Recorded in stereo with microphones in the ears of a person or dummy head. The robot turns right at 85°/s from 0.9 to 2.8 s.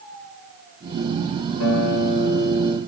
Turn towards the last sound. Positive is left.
turn(degrees=-165)